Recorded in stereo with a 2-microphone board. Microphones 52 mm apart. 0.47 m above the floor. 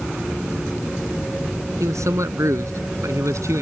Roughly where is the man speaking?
Right.